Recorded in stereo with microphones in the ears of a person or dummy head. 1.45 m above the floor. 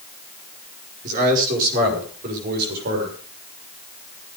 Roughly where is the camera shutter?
I don't hear a camera shutter.